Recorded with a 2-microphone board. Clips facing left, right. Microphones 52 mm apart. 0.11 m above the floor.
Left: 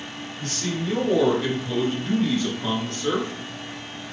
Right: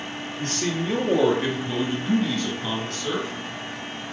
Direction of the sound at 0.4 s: 40° right (ahead or behind).